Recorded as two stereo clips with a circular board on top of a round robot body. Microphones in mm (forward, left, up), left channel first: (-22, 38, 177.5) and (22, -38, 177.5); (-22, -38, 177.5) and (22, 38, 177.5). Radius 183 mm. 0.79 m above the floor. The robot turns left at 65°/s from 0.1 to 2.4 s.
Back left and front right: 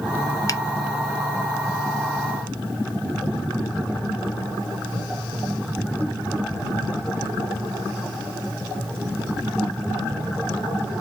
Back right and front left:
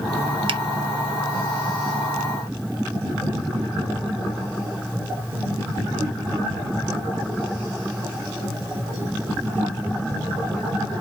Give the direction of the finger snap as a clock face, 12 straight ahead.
10 o'clock.